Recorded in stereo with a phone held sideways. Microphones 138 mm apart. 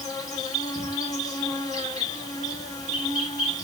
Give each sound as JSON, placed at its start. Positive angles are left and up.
{"t": 0.0, "sound": "an insect", "side_deg": 30, "distance_m": 1.4}